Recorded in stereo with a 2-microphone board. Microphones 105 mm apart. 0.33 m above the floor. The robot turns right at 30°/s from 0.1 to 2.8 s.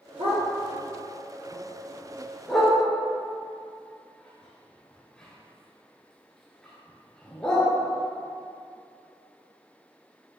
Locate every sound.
0.2 s a dog barking: 70° right (ahead or behind), 2 m; by 7.7 s 5° left (ahead or behind), 2 m